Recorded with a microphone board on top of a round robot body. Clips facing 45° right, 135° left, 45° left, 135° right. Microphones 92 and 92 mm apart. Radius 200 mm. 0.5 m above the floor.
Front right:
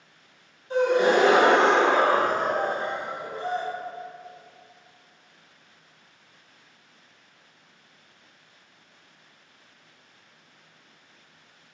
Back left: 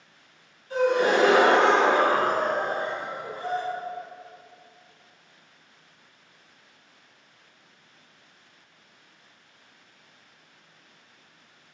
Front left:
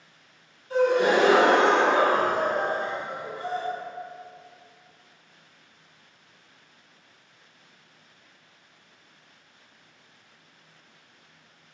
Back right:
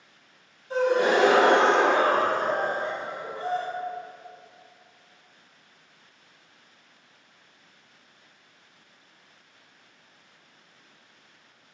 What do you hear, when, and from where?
0.7 s a gasp: 90° right, 1.2 m